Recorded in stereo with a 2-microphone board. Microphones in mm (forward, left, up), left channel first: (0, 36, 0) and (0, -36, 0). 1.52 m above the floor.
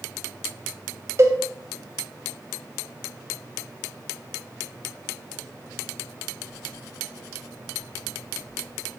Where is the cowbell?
40° right (ahead or behind), 0.8 m.